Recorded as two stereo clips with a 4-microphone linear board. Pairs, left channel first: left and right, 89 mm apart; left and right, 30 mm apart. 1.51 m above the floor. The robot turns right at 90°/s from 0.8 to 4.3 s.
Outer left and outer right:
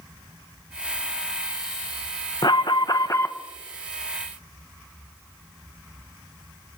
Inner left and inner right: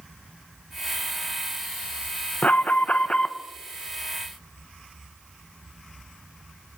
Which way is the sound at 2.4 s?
70° left.